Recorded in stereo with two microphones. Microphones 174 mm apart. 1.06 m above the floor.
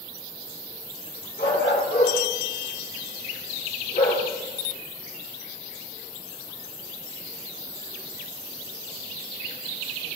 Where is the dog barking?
85° left, 4.5 m; by 4.2 s 60° left (ahead or behind), 7.5 m.